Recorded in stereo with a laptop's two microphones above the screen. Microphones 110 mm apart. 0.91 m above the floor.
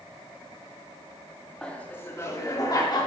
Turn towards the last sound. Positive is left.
turn(degrees=40)  # may be behind; listen again after turning